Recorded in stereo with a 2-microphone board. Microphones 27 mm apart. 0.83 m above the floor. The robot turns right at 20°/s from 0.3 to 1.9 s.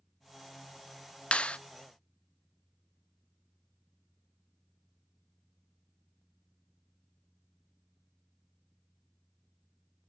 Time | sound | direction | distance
1.3 | a clap | 50° left (ahead or behind) | 0.7 m